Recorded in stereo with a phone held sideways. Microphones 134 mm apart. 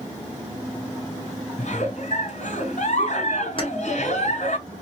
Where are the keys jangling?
40° left (ahead or behind), 1.0 m.